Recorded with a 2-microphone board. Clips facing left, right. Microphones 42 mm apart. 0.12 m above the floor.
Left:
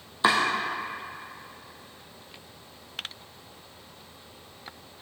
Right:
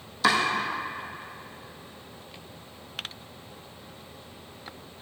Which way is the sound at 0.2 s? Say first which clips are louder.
Even; 25° left (ahead or behind).